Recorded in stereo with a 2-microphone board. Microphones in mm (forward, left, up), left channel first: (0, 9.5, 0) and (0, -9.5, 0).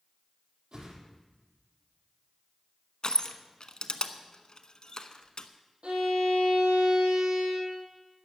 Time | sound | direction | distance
0.7 | a whoosh | 60° right (ahead or behind) | 3.5 m
3.0 | crushing | 45° left (ahead or behind) | 0.9 m
5.8 | a violin | 80° right | 3 m